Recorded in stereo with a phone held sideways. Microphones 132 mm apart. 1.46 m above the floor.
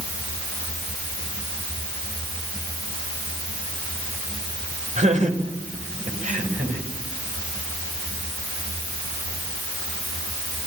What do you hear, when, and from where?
5.0 s laughter: 65° right (ahead or behind), 7 m; by 6.8 s 75° right (ahead or behind), 9.5 m